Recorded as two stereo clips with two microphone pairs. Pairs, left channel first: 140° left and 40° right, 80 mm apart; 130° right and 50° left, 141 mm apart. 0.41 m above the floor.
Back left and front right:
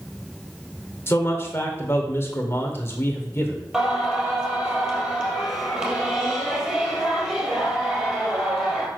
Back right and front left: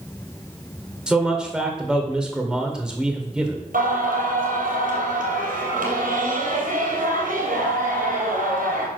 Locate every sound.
1.1 s a man speaking: 130° left, 1.5 m
3.7 s singing: 45° left, 3 m